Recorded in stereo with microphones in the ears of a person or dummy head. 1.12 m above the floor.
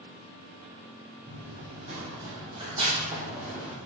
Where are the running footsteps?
55° right (ahead or behind), 2.0 m; by 3.8 s 5° right (ahead or behind), 1.6 m.